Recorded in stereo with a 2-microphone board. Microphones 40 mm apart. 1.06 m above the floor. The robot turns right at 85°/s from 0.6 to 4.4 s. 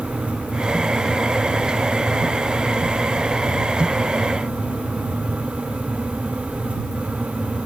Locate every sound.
Only background noise.